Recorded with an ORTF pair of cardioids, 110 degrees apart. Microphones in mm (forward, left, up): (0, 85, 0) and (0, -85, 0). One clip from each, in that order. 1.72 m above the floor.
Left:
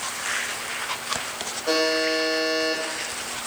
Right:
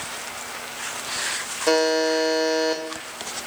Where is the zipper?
No zipper in this recording.